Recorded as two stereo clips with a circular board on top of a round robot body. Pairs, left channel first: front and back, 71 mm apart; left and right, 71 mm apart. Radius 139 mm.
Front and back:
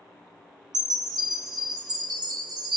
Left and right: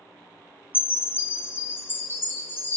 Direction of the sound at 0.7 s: 150° left.